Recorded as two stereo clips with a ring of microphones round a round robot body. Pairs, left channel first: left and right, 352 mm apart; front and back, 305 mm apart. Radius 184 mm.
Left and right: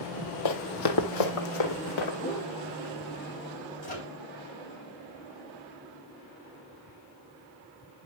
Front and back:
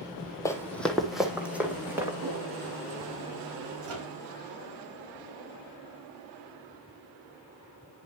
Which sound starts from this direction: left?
Running footsteps, at 0.5 s.